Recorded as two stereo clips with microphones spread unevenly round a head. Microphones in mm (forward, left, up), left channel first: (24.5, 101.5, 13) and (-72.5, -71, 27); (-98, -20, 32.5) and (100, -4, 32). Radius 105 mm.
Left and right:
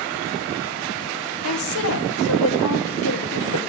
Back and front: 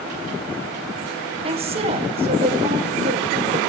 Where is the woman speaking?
70° left, 1.7 m.